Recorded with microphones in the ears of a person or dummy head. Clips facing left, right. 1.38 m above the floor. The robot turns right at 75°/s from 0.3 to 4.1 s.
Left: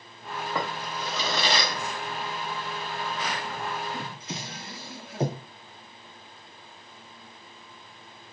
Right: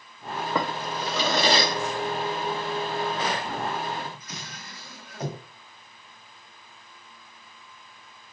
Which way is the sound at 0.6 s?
60° right (ahead or behind).